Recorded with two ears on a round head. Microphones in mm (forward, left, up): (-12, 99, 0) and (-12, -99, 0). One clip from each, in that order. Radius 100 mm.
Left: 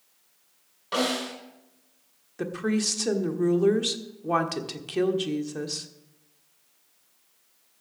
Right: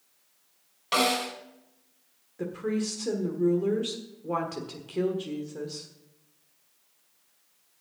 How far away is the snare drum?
About 4 m.